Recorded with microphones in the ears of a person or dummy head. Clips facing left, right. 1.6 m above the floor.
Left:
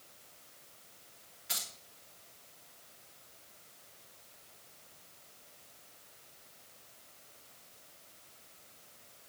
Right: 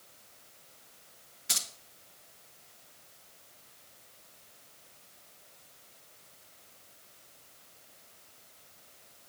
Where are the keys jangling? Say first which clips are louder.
Right 2 dB; 65° right (ahead or behind), 1.2 m.